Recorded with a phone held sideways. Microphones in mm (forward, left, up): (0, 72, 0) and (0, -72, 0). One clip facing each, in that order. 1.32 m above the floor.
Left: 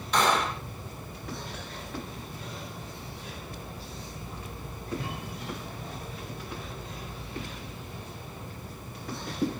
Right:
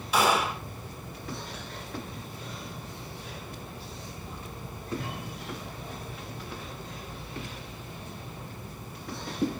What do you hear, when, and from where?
0.1 s a gunshot: 10° right (ahead or behind), 1.8 m